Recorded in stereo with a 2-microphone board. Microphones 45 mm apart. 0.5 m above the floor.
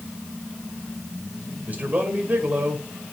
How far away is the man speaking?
About 2 m.